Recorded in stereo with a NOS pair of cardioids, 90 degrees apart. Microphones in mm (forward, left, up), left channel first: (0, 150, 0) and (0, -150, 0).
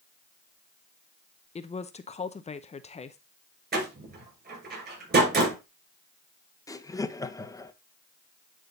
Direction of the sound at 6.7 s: 10° left.